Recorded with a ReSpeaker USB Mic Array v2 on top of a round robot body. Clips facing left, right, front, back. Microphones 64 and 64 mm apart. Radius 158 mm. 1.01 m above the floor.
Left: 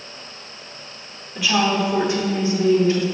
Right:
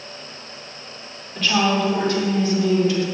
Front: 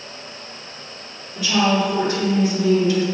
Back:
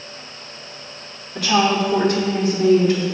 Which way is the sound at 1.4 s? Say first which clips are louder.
Even, back 1 dB; 170° left.